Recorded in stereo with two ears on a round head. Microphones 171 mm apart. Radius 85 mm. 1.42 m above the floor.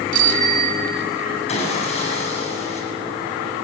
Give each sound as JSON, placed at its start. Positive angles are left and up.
{"t": 0.1, "sound": "a bicycle bell", "side_deg": -45, "distance_m": 2.0}
{"t": 1.5, "sound": "sawing", "side_deg": 35, "distance_m": 7.5}